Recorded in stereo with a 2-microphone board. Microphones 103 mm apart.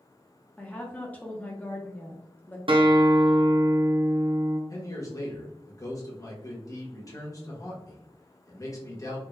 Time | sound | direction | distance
0.6 | a woman speaking | 15° left (ahead or behind) | 0.6 m
2.7 | a guitar | 55° right (ahead or behind) | 0.6 m
4.7 | a man speaking | 35° left (ahead or behind) | 1.3 m